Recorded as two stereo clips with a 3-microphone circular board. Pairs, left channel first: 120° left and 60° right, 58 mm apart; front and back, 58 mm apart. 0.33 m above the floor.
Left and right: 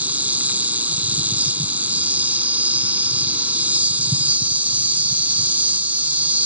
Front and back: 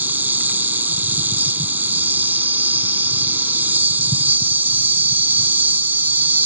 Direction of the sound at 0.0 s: 125° right.